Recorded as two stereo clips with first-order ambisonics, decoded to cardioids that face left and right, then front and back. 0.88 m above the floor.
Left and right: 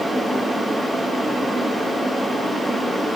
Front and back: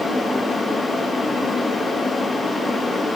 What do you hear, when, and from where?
Only background noise.